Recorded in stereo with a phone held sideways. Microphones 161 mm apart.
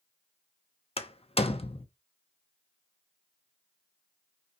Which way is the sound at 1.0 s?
40° left (ahead or behind).